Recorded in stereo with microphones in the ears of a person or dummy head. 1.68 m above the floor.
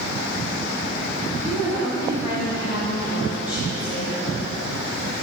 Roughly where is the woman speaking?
Left.